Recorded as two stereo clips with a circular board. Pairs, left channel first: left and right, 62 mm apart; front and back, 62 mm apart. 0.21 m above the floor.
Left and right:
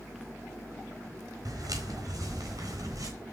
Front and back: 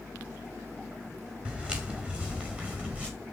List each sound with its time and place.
1.4 s footsteps: 110° right, 3.5 m; by 3.1 s 115° right, 5 m